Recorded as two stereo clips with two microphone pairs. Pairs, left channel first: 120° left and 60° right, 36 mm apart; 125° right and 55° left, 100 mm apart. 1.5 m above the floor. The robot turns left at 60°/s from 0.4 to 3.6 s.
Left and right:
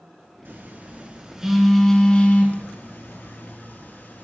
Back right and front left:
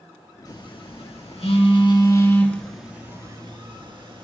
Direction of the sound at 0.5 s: 85° right.